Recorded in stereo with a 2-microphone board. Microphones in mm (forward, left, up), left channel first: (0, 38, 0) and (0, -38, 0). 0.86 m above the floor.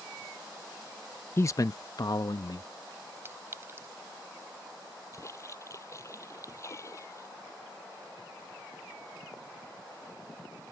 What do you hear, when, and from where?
1.4 s a man speaking: 30° left (ahead or behind); by 2.7 s 55° left (ahead or behind)
3.2 s a clink: 30° right (ahead or behind)
5.1 s a splash: 40° left (ahead or behind)